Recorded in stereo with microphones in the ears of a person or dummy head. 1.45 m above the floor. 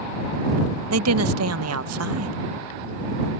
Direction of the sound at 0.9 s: 80° right.